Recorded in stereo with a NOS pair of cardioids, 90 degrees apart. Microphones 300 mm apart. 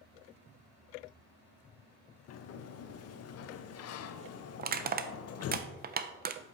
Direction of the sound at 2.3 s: 60° left.